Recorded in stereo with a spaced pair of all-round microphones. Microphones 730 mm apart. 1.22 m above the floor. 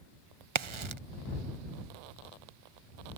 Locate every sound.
0.6 s a crack: 45° right (ahead or behind)